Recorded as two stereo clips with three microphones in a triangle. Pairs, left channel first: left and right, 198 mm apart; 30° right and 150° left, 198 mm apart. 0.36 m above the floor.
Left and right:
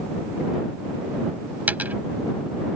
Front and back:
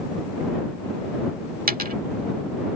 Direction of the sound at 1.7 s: 170° right.